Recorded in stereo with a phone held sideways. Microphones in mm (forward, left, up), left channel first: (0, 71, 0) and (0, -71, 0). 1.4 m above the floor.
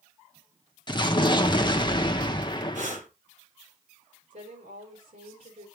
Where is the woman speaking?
70° right (ahead or behind), 5 m.